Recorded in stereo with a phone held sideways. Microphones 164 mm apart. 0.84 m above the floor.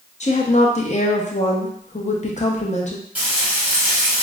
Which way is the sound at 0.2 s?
45° left (ahead or behind).